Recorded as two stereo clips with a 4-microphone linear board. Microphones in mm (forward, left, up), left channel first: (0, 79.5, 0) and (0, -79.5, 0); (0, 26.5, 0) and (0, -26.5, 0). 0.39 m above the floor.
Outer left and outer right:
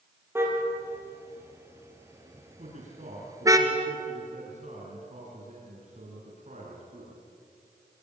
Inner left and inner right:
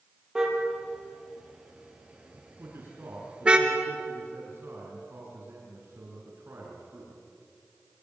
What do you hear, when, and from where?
0.3 s a car horn: 15° right (ahead or behind), 4.5 m; by 3.6 s 20° right (ahead or behind), 2.5 m
2.6 s a man speaking: 50° right (ahead or behind), 5.5 m